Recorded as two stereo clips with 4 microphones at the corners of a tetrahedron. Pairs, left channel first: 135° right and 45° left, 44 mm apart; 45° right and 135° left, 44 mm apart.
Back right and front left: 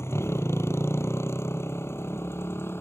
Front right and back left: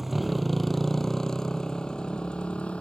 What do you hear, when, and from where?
0.0 s a motorcycle: 140° right; by 2.8 s 110° right